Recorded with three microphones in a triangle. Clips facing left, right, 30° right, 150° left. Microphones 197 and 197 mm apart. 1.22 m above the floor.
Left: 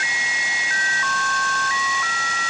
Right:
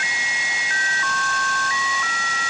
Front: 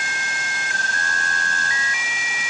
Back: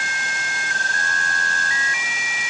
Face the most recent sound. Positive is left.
No sound to turn to.